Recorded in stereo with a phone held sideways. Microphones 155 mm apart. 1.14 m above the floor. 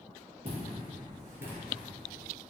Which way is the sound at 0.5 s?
40° right (ahead or behind).